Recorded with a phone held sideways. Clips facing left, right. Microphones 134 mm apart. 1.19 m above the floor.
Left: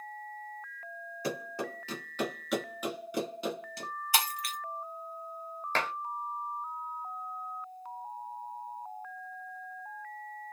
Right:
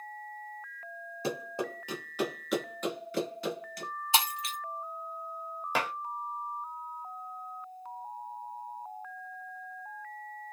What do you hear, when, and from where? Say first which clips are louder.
1.2 s running footsteps: right 2 dB; 25° right (ahead or behind), 1.4 m; by 3.9 s 30° left (ahead or behind), 1.3 m
4.1 s breaking glass: right 2 dB; 20° right (ahead or behind), 0.7 m
5.8 s dishes clattering: right 1 dB; 10° right (ahead or behind), 0.5 m